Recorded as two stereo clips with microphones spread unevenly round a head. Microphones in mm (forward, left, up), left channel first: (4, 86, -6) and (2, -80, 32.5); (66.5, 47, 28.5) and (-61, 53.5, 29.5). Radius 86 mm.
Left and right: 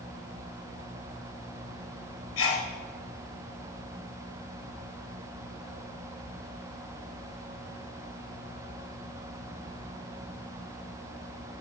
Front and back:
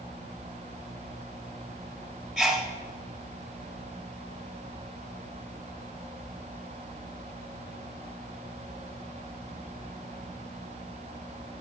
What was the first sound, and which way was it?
A sneeze, 90° left.